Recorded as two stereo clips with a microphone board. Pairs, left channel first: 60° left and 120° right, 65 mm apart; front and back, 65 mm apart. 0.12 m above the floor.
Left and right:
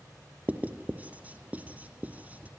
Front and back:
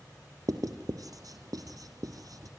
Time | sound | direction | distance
0.5 | writing | 175° left | 1.7 m